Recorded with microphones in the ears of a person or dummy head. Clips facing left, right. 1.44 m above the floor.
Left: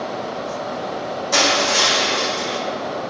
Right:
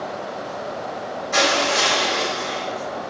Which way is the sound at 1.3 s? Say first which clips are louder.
Even; 90° left.